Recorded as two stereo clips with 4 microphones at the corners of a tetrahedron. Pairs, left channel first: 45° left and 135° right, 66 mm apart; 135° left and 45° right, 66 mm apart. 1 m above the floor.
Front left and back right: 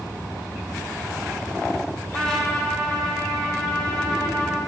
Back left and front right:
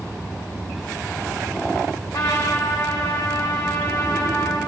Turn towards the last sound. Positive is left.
turn(degrees=125)